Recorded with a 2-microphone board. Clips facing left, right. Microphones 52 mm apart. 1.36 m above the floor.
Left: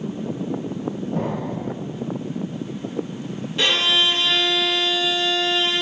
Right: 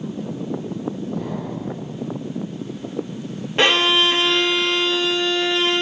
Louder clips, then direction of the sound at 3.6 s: Right 4 dB; 50° right (ahead or behind).